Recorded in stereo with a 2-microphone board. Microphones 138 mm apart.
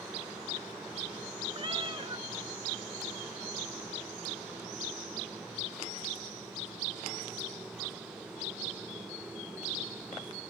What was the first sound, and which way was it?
A cat meowing, 35° right (ahead or behind).